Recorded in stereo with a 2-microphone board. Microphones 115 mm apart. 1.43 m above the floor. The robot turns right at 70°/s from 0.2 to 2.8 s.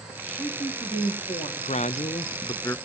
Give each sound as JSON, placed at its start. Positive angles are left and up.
{"t": 0.2, "sound": "a woman speaking", "azimuth_deg": 5, "distance_m": 3.0}
{"t": 1.6, "sound": "a man speaking", "azimuth_deg": 80, "distance_m": 0.5}